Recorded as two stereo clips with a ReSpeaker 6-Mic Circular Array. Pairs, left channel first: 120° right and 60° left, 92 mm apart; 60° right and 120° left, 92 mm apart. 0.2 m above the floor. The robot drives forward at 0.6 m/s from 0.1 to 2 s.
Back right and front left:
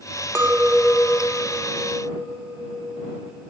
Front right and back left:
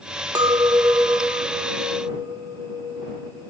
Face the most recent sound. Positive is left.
turn(degrees=160)